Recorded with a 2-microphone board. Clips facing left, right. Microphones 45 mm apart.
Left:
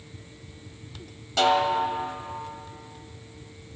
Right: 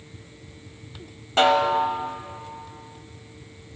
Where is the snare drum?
35° right (ahead or behind), 0.9 m.